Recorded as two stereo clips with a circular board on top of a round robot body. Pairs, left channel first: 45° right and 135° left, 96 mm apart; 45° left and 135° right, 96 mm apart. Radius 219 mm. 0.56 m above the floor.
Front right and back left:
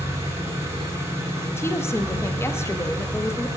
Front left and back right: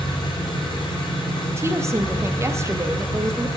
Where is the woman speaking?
95° right, 0.8 m.